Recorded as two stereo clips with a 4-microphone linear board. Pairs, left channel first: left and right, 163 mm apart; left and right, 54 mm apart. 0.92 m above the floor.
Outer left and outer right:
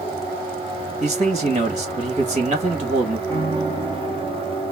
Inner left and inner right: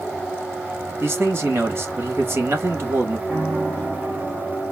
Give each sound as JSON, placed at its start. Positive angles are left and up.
{"t": 1.0, "sound": "a man speaking", "side_deg": -45, "distance_m": 1.2}
{"t": 3.3, "sound": "a piano", "side_deg": -25, "distance_m": 3.5}